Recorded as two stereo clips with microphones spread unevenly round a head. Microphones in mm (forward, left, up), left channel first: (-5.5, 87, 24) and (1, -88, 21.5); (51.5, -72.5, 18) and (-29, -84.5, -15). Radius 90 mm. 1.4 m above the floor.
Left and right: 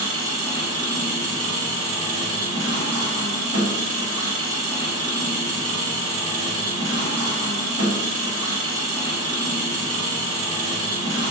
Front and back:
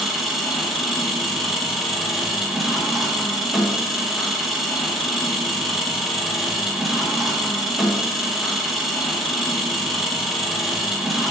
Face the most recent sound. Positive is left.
turn(degrees=-80)